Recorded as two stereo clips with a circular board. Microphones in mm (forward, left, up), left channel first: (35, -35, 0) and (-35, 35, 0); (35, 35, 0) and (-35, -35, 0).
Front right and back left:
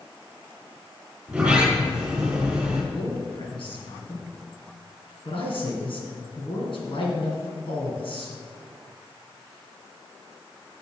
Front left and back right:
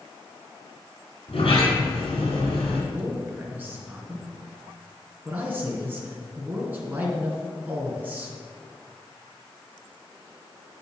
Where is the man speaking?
65° right, 3 m.